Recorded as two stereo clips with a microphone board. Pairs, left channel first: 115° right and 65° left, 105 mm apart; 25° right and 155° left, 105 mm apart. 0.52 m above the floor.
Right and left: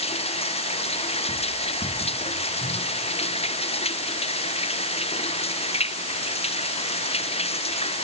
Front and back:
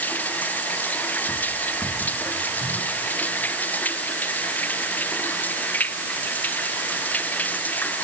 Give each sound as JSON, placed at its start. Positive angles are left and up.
{"t": 0.0, "sound": "running water", "azimuth_deg": -95}